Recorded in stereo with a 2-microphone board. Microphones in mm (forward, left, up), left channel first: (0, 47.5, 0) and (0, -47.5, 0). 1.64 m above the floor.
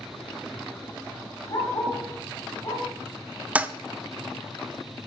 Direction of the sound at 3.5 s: 15° right (ahead or behind).